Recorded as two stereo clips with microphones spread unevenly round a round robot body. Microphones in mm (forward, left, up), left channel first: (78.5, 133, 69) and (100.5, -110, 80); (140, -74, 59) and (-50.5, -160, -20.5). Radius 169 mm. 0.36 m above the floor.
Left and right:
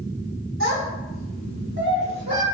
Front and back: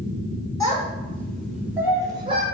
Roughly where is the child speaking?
Ahead right.